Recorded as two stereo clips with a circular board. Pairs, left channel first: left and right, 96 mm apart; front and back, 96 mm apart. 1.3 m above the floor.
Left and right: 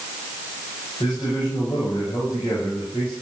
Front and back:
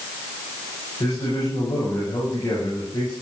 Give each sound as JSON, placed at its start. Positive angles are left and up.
{"t": 1.0, "sound": "a man speaking", "azimuth_deg": 45, "distance_m": 8.0}